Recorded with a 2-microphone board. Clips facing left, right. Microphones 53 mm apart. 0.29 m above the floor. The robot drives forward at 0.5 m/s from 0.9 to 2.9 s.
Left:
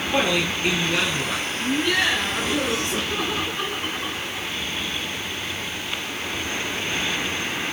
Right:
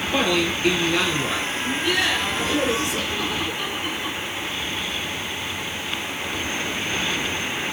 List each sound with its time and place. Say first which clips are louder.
0.1 s a man speaking: right 1 dB; 15° left (ahead or behind), 6.5 m
1.6 s laughter: left 2 dB; 40° left (ahead or behind), 3.5 m; by 4.5 s 45° left (ahead or behind), 3 m